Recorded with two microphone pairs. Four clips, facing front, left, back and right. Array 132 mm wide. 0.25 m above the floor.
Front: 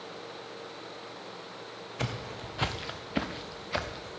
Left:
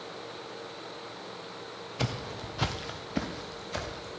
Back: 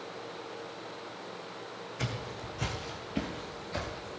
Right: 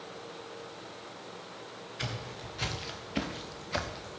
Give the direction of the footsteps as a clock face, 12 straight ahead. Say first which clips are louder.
Left 6 dB, front 2 dB; 10 o'clock.